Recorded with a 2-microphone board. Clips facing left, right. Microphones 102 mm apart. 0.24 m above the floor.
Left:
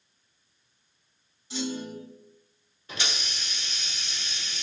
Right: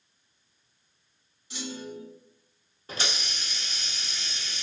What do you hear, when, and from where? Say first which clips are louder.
1.5 s a clunk: left 5 dB; 25° left (ahead or behind), 1.7 m
2.9 s a hiss: right 1 dB; 40° right (ahead or behind), 0.8 m